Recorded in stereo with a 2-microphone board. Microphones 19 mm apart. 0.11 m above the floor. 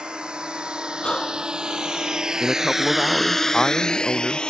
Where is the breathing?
50° left (ahead or behind).